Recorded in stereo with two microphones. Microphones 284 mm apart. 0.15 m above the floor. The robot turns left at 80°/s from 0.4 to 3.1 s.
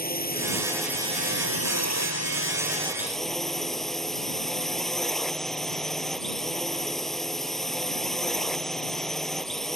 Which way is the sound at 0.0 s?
35° left.